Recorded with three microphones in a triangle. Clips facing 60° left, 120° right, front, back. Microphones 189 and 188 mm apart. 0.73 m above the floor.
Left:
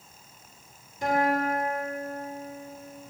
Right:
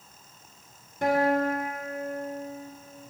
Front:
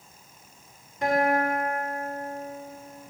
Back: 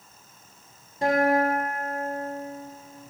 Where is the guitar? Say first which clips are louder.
Right 2 dB, back 2 dB; 130° right, 1.1 m.